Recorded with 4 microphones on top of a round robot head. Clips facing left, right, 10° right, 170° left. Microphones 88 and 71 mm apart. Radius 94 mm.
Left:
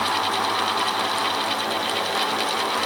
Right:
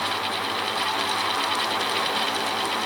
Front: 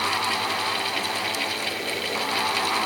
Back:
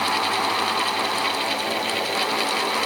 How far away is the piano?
No piano in this recording.